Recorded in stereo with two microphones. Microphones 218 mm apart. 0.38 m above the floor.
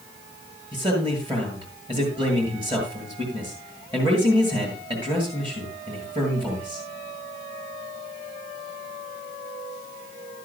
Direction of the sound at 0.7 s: 25° right (ahead or behind).